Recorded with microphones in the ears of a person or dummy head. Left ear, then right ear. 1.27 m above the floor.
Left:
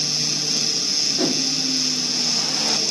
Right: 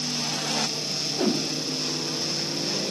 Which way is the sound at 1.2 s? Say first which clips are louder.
Left 4 dB; 25° left (ahead or behind).